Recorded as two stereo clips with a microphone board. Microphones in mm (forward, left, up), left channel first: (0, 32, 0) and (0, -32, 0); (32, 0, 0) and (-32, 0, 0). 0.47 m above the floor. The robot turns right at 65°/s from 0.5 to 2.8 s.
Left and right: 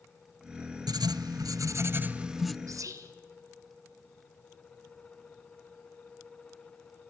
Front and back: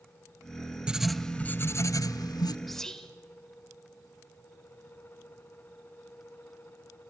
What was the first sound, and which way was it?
Writing, 105° right.